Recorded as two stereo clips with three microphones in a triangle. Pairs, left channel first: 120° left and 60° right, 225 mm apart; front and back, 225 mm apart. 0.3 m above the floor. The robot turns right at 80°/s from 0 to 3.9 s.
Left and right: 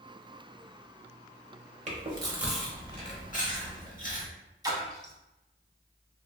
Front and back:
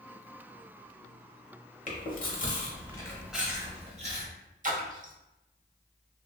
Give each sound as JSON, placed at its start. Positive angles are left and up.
{"t": 1.9, "sound": "chewing", "azimuth_deg": -25, "distance_m": 0.8}
{"t": 4.6, "sound": "a splash", "azimuth_deg": -130, "distance_m": 0.6}